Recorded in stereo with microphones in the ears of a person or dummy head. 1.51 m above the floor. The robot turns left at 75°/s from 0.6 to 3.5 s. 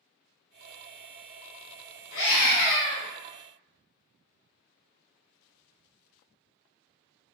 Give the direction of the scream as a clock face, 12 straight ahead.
9 o'clock.